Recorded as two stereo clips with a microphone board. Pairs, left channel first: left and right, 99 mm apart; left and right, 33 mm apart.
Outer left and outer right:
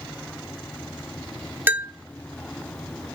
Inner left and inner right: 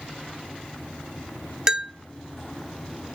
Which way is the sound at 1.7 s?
20° right (ahead or behind).